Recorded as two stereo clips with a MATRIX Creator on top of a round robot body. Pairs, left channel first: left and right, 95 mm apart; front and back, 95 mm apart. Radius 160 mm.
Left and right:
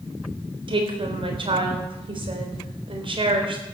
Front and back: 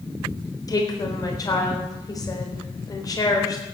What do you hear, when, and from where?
0.7 s a woman speaking: 55° right, 4 m